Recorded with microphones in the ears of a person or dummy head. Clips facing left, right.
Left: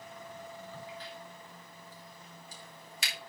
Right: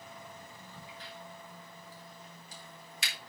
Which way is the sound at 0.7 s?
75° left (ahead or behind).